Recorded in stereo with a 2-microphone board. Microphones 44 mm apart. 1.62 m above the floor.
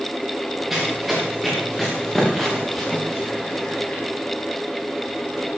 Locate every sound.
0.7 s running footsteps: centre (ahead or behind), 7.5 m; by 4.0 s 20° left (ahead or behind), 7 m